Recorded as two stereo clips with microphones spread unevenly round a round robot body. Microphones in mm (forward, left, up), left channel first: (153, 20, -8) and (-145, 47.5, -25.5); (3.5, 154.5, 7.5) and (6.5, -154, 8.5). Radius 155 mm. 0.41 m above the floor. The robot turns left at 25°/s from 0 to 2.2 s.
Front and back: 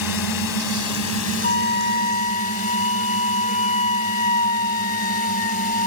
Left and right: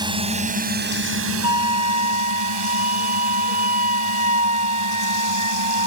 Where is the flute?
25° right; by 5.9 s 45° right.